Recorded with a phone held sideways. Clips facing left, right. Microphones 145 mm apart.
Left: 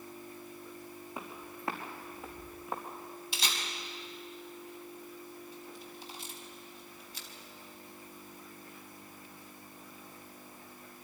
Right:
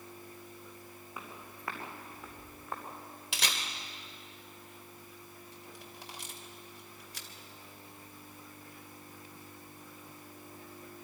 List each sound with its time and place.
1.2 s footsteps: 30° left (ahead or behind), 4.5 m; by 3.2 s 10° left (ahead or behind), 5 m
3.3 s a camera shutter: 75° right (ahead or behind), 2.5 m